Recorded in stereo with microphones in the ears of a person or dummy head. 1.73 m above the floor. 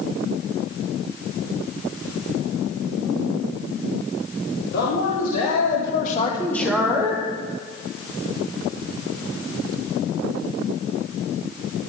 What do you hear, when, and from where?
4.7 s a man speaking: 70° left (ahead or behind), 1.9 m; by 7.3 s 20° right (ahead or behind), 1.8 m